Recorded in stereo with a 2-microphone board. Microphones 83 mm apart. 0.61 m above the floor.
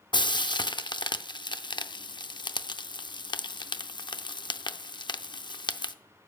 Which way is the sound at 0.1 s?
65° left (ahead or behind).